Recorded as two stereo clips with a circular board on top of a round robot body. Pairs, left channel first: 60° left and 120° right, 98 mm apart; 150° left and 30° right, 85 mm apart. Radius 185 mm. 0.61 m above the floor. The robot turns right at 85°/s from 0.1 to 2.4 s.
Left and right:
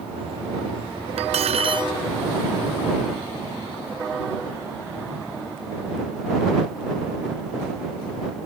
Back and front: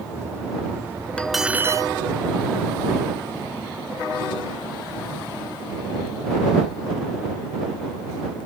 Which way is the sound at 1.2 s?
135° right.